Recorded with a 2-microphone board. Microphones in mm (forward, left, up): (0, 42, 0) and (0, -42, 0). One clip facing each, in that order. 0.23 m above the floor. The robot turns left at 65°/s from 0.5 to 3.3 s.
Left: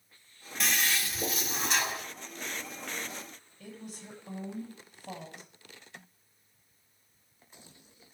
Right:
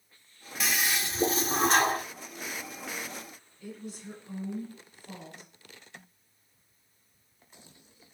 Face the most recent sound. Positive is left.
turn(degrees=60)  # may be behind; listen again after turning